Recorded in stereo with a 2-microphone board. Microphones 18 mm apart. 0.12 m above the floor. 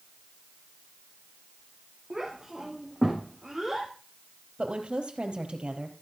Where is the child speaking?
20° right (ahead or behind), 6 m; by 3.9 s 15° right (ahead or behind), 4.5 m.